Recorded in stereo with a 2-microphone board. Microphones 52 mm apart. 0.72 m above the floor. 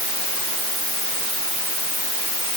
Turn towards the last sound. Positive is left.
No sound to turn to.